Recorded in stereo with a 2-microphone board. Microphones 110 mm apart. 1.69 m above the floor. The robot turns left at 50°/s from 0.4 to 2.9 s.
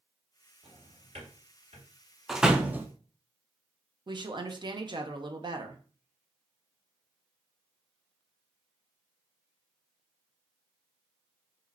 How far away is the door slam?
About 0.6 m.